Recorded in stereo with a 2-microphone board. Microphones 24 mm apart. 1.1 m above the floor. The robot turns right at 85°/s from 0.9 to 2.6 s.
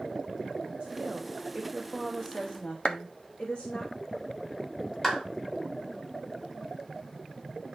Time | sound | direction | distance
0.8 | a woman speaking | 90° right | 1.4 m
2.9 | a clap | 50° left (ahead or behind) | 1.0 m
5.0 | a clap | 15° left (ahead or behind) | 3.5 m